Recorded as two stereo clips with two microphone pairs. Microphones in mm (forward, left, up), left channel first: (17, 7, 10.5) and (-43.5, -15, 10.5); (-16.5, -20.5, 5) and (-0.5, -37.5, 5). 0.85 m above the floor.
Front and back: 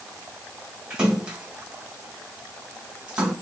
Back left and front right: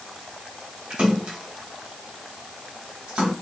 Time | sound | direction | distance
0.9 | a splash | 85° right | 2 m